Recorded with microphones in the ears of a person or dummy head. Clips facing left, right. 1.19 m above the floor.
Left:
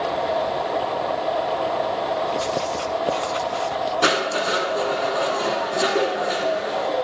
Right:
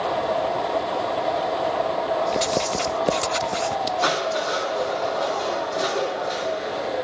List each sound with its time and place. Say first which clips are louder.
2.3 s writing: right 1 dB; 20° right (ahead or behind), 0.6 m
4.0 s crushing: left 2 dB; 35° left (ahead or behind), 3.5 m